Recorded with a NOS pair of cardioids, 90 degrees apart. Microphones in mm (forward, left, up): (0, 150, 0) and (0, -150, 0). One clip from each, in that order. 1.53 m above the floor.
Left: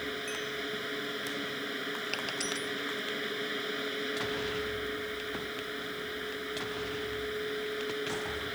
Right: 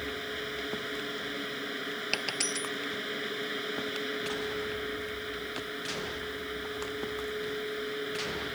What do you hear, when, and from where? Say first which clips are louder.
0.0 s a fan: even; 5° right
2.1 s a dropped coin: right 5 dB; 45° right